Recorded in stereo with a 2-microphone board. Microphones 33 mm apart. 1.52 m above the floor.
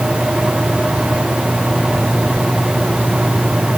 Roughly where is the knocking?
No knocking in this recording.